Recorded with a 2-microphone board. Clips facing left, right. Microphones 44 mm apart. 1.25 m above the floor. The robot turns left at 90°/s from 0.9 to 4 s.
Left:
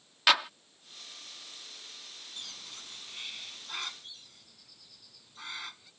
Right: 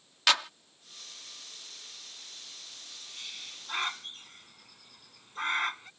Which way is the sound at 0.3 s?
10° left (ahead or behind).